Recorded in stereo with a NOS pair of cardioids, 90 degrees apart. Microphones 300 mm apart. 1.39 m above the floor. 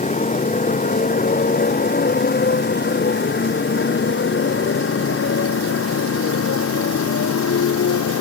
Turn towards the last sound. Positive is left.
turn(degrees=55)